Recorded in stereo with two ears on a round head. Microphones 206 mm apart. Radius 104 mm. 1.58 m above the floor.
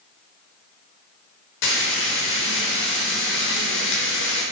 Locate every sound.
1.6 s frying: 55° left (ahead or behind), 4.5 m